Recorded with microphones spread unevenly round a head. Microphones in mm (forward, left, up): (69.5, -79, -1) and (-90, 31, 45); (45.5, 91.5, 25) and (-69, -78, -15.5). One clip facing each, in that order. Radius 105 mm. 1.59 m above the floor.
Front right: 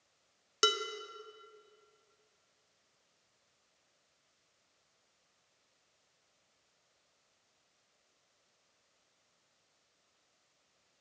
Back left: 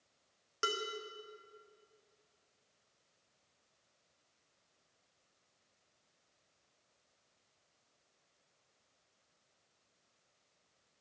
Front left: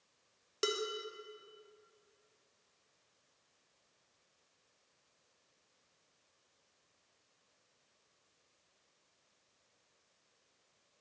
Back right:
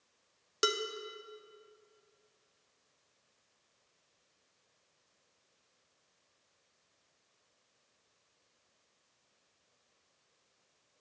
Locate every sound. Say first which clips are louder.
0.6 s dishes clattering: front right 6 dB, back right 2 dB; 45° right, 0.6 m